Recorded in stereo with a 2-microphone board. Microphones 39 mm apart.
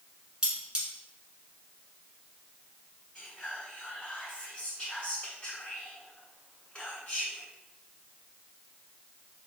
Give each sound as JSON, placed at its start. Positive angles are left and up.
{"t": 0.4, "sound": "cutlery clinking", "side_deg": -20, "distance_m": 1.1}
{"t": 3.1, "sound": "whispering", "side_deg": 25, "distance_m": 1.6}